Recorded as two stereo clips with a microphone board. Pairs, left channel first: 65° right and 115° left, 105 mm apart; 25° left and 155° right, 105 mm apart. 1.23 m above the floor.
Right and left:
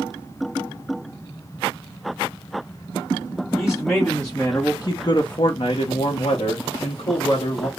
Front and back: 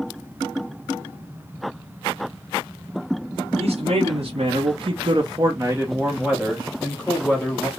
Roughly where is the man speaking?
Behind.